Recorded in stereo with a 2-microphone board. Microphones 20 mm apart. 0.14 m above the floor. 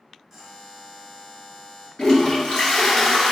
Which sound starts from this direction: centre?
A buzzer, at 0.3 s.